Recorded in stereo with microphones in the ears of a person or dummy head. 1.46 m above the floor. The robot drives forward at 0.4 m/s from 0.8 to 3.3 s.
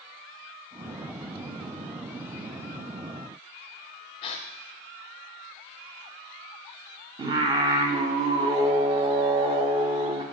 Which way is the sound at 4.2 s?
25° left (ahead or behind).